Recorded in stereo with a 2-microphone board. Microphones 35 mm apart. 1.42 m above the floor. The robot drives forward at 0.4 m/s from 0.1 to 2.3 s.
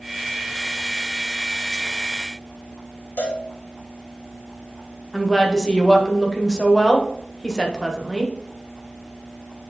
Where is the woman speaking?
10° left (ahead or behind), 1.4 m.